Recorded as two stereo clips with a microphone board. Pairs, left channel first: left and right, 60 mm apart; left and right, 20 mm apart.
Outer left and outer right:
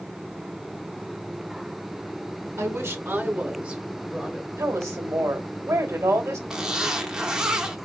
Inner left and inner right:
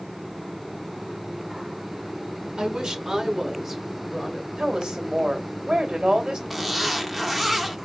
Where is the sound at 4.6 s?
55° right (ahead or behind), 2 m.